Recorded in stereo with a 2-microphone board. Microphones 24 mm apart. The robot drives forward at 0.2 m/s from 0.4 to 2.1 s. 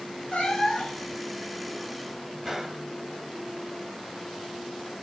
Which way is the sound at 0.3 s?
55° left (ahead or behind).